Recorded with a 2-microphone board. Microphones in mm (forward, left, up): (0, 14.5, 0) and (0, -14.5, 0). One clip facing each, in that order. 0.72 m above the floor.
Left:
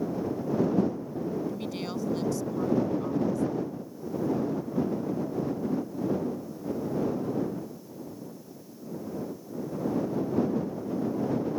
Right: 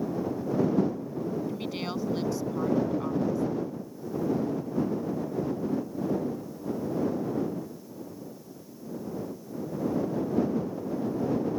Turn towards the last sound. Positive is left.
turn(degrees=-20)  # may be behind; listen again after turning